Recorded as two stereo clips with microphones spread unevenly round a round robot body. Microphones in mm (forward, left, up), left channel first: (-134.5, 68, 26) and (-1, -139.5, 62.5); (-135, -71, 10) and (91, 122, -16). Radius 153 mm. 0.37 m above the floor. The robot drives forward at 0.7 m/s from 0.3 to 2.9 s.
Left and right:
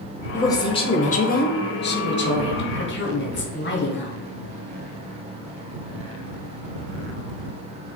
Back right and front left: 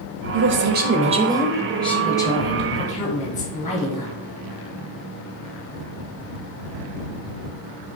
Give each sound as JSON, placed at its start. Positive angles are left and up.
{"t": 0.3, "sound": "a woman speaking", "azimuth_deg": 55, "distance_m": 1.1}